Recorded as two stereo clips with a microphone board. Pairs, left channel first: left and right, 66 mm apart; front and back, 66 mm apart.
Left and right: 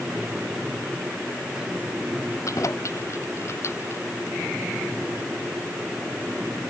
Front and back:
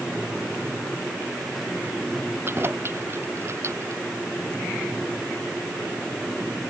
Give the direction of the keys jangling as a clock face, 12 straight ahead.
8 o'clock.